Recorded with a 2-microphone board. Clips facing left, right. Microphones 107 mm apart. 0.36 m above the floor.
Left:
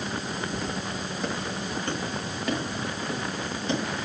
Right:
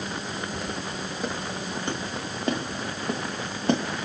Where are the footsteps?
5° left (ahead or behind), 3.5 m; by 4.1 s 65° right (ahead or behind), 3 m.